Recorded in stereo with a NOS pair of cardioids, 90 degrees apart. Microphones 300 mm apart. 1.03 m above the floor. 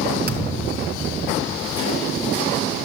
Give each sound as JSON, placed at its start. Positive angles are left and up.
{"t": 0.3, "sound": "a thud", "azimuth_deg": -30, "distance_m": 3.0}